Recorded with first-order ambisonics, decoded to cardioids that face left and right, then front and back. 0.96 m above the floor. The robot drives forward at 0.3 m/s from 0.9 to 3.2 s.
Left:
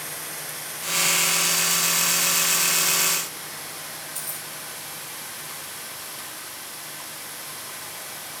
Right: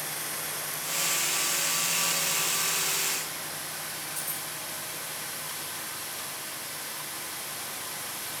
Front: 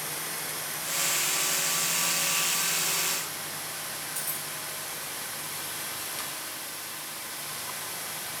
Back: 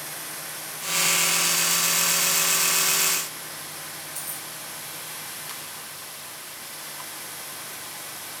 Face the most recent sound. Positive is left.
turn(degrees=115)